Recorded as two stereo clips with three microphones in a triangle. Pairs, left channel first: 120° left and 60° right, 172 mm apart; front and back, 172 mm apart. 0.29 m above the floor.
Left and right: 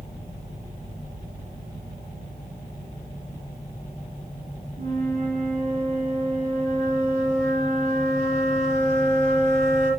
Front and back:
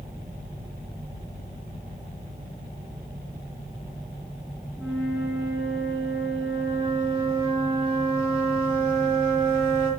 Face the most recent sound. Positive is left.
turn(degrees=-95)